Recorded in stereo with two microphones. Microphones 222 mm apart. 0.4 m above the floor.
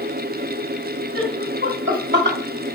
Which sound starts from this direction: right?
Laughter, at 1.1 s.